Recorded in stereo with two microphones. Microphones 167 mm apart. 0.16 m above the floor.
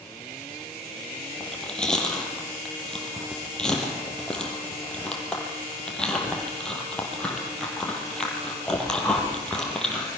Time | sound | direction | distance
1.4 | chewing | 5° left (ahead or behind) | 4.5 m